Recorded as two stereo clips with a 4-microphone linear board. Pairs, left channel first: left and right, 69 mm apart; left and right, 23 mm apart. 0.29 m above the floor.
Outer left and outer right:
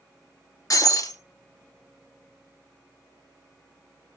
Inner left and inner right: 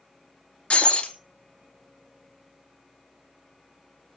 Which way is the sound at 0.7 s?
55° left (ahead or behind).